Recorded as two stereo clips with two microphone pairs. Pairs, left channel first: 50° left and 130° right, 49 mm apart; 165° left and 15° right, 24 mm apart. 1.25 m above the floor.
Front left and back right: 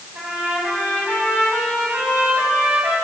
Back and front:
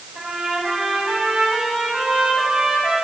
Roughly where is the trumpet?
Right.